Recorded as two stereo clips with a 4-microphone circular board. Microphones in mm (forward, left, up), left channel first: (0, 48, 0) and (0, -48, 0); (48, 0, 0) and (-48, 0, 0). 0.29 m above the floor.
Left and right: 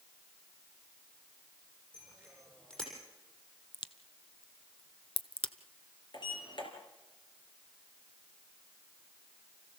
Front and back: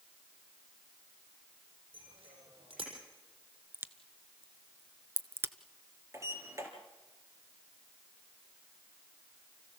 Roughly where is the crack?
Behind left.